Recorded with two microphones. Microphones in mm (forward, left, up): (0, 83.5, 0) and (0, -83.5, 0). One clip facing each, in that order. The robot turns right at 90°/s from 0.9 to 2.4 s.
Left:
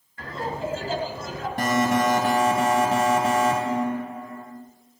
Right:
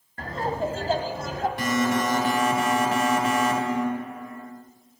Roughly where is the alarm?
Ahead left.